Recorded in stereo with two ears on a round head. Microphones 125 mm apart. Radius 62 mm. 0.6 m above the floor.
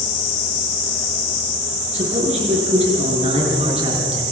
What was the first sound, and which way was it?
A man speaking, 50° right (ahead or behind).